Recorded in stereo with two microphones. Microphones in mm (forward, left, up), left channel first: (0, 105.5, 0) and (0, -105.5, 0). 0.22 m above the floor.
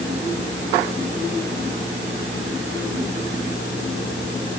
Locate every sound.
Only background noise.